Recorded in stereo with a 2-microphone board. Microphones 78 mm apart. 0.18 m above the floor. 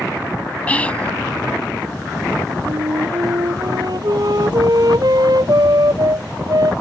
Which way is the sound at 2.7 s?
60° right (ahead or behind).